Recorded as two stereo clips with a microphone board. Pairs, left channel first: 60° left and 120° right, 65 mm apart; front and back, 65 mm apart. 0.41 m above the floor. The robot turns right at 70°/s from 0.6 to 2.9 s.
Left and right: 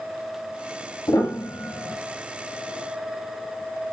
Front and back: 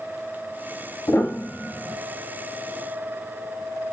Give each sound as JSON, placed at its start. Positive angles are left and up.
{"t": 1.1, "sound": "a piano", "azimuth_deg": 35, "distance_m": 0.6}